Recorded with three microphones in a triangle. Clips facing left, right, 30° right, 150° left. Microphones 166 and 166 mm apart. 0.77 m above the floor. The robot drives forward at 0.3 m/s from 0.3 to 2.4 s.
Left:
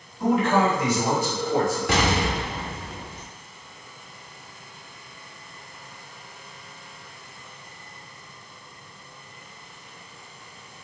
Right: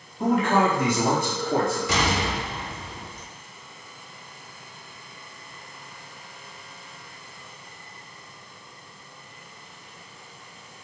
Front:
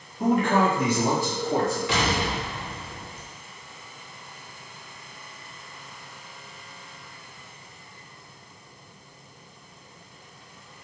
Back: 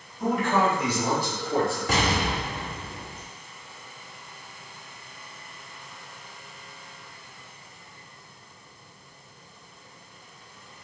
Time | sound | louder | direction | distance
0.2 | a man speaking | even, front 3 dB | 55° right | 1.3 m
1.9 | an explosion | left 2 dB, even | 110° left | 0.7 m